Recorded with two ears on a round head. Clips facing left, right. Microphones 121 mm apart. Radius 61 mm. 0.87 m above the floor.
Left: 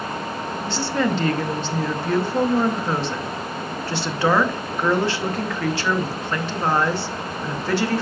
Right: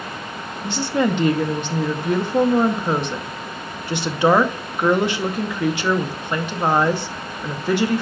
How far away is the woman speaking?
About 0.8 m.